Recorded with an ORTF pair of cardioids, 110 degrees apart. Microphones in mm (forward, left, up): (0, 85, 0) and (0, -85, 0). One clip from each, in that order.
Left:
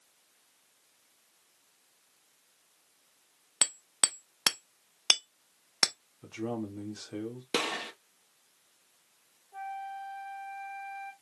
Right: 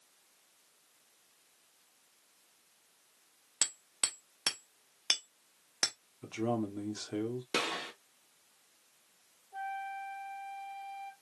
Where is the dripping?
No dripping in this recording.